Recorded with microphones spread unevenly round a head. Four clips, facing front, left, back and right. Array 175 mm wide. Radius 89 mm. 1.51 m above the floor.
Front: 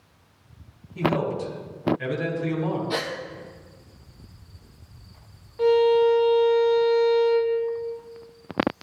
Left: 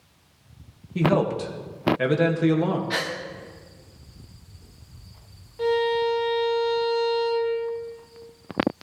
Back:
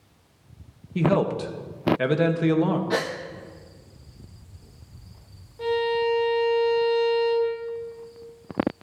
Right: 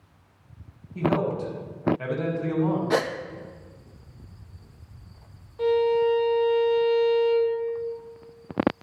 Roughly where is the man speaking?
Behind left.